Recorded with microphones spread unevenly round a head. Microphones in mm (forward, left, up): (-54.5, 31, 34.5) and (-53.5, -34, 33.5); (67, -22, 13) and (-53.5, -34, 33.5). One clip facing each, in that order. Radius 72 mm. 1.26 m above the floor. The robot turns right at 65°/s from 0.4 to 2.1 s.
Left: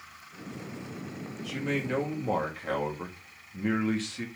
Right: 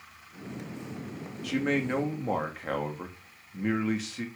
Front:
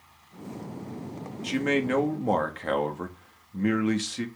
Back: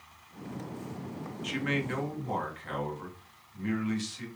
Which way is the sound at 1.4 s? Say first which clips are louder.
Right 4 dB, front 7 dB; 45° right.